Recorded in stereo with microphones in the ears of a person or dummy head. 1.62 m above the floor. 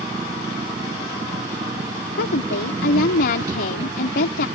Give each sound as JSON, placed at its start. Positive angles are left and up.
{"t": 0.0, "sound": "an engine running", "side_deg": -20}
{"t": 2.2, "sound": "a woman speaking", "side_deg": 55}